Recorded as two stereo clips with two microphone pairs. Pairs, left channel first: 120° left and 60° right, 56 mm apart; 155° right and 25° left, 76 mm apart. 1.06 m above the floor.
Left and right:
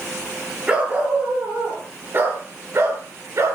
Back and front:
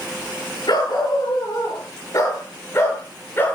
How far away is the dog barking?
About 7.5 m.